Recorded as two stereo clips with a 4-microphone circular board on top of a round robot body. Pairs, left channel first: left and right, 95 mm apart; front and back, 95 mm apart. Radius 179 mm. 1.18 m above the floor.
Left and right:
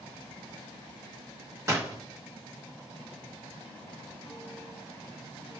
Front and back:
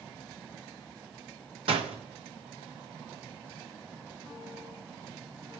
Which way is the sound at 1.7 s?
150° right.